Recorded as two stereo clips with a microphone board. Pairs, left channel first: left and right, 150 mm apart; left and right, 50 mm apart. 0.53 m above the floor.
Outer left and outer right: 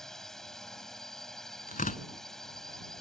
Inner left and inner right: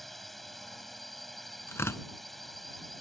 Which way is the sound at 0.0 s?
5° left (ahead or behind).